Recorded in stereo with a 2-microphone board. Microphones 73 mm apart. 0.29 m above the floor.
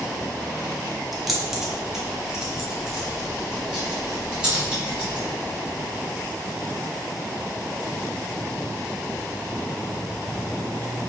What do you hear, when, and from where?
1.1 s keys jangling: centre (ahead or behind), 0.8 m; by 5.2 s 15° right (ahead or behind), 2.5 m